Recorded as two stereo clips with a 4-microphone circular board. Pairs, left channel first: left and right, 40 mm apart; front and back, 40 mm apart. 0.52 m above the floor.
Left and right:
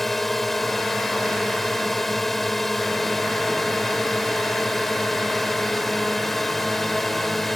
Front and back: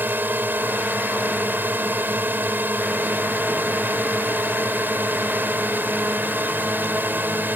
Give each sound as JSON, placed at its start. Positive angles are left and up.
{"t": 0.0, "sound": "a drone", "azimuth_deg": 175}